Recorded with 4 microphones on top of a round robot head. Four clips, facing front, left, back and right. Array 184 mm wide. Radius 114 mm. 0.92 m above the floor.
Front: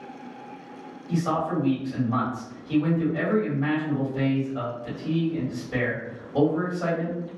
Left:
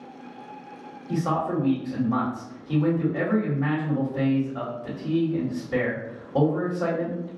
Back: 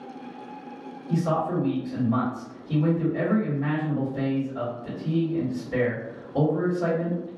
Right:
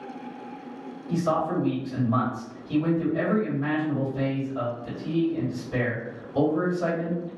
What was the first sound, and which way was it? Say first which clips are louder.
A man speaking: even, even; 75° left.